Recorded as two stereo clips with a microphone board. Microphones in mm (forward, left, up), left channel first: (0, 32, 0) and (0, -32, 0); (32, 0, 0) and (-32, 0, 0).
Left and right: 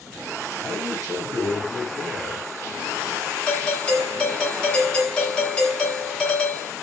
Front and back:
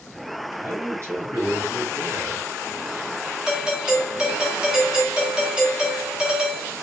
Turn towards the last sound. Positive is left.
turn(degrees=125)